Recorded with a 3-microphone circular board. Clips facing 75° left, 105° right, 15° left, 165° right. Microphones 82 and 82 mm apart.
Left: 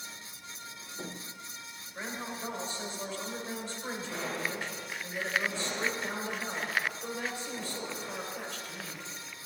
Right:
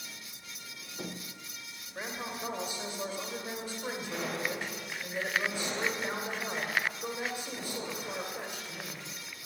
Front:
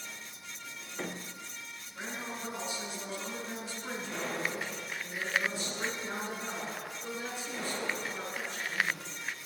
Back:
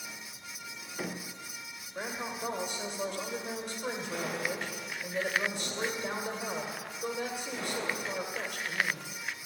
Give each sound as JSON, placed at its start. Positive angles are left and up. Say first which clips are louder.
{"t": 1.9, "sound": "a woman speaking", "louder": "even, back 3 dB", "azimuth_deg": -175, "distance_m": 2.0}